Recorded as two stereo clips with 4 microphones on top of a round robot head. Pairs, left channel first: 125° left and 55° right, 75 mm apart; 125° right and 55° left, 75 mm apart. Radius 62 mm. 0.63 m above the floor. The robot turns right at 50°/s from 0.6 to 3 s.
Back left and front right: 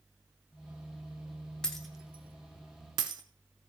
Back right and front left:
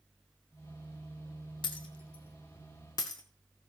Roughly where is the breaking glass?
Behind right.